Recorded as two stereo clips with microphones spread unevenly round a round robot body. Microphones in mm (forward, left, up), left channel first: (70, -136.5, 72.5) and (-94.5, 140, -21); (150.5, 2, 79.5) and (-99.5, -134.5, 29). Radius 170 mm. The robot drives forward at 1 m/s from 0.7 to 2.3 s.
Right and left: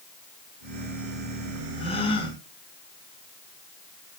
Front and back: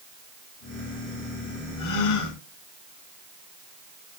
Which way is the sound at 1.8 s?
20° left.